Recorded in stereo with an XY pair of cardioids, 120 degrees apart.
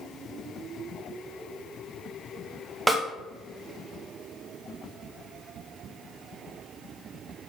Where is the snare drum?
10° right, 1.4 m.